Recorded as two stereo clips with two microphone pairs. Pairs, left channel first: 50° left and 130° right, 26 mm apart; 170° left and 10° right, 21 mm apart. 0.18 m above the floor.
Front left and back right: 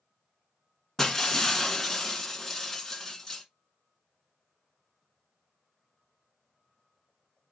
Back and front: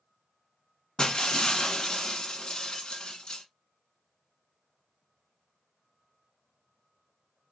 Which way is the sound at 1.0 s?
130° left.